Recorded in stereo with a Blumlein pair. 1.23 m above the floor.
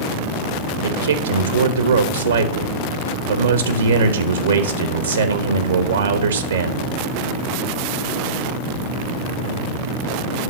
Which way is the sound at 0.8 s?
70° right.